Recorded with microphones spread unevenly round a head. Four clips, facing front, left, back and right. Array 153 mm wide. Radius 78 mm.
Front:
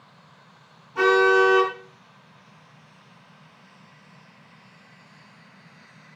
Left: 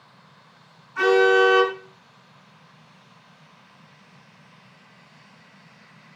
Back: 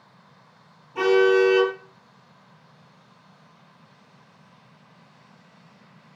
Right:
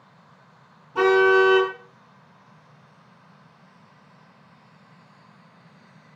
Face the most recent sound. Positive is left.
turn(degrees=-105)